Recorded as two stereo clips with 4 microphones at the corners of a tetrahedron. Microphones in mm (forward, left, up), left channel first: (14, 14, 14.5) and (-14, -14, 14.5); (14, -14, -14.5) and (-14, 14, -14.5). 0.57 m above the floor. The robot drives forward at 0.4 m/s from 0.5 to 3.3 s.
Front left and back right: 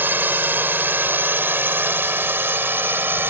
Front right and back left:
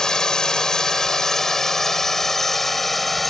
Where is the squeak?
No squeak in this recording.